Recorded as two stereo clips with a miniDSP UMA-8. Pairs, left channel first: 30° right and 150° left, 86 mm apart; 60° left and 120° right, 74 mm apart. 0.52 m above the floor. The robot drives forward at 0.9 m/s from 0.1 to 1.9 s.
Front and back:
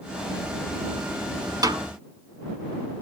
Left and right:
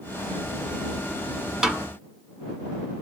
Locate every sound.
1.6 s a snare drum: 160° left, 1.1 m; by 1.9 s 165° left, 1.2 m